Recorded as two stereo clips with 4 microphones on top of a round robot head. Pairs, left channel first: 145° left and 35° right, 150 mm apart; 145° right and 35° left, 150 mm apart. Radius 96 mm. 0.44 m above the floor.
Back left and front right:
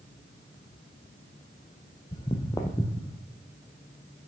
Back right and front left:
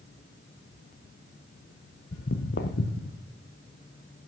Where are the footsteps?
160° right, 0.6 m; by 3.2 s 135° right, 1.4 m.